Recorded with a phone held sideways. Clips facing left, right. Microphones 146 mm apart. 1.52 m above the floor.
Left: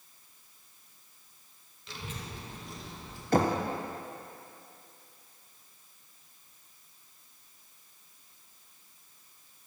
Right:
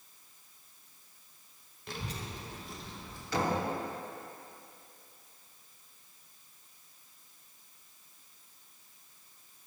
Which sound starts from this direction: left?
Knocking, at 3.3 s.